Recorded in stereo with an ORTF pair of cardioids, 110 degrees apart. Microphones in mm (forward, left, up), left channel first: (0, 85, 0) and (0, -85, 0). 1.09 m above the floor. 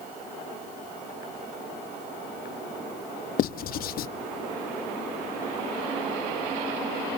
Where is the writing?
60° left, 0.9 m.